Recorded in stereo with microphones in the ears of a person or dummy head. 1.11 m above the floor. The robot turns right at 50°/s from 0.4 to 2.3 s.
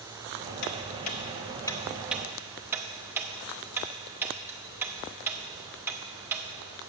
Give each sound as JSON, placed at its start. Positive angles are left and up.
{"t": 0.6, "sound": "ticking", "side_deg": 65, "distance_m": 0.7}